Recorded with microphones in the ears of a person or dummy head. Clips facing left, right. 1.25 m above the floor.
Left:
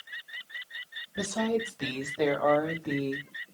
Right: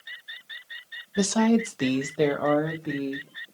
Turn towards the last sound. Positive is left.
turn(degrees=-10)  # may be behind; listen again after turning